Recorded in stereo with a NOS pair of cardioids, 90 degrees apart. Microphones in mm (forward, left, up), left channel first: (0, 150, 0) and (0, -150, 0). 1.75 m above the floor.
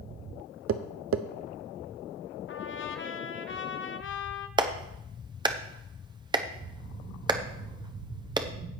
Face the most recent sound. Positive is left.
turn(degrees=-15)